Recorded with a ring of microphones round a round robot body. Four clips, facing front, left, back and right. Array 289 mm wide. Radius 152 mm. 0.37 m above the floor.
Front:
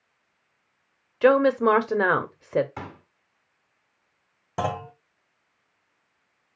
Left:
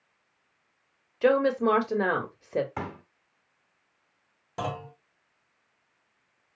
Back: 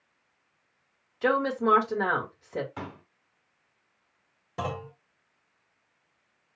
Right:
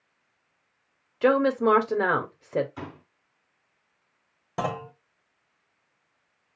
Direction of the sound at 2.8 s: 80° left.